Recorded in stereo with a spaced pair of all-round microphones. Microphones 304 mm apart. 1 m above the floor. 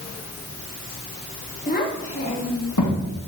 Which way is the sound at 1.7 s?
25° left (ahead or behind).